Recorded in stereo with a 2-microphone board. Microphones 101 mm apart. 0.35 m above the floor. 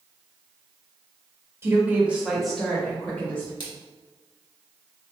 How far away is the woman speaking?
About 0.9 m.